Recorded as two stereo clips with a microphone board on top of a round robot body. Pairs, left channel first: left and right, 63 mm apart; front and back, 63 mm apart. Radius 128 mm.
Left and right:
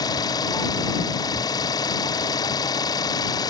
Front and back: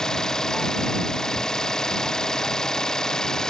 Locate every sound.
0.0 s an engine running: 80° left